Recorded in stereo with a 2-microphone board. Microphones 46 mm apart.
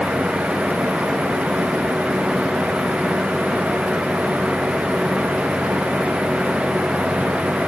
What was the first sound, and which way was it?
Only background noise.